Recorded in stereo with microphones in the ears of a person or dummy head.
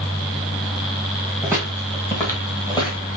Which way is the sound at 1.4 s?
Centre (ahead or behind).